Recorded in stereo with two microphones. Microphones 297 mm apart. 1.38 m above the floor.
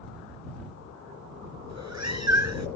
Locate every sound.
1.7 s a cat meowing: 65° right (ahead or behind)